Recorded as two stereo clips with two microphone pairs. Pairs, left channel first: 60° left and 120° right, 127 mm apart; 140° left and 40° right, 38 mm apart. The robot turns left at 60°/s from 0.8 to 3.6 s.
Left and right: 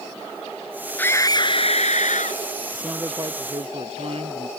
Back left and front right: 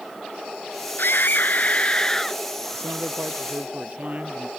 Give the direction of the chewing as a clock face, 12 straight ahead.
I don't hear chewing.